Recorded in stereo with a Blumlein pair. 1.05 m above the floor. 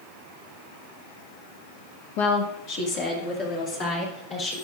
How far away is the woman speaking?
About 1.2 m.